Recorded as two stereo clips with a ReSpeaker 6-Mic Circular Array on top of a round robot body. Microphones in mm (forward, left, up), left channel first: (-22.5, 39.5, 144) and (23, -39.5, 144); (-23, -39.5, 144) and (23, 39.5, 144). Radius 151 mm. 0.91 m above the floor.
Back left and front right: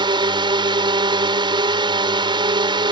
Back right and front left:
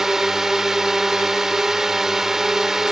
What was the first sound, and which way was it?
A drone, 25° right.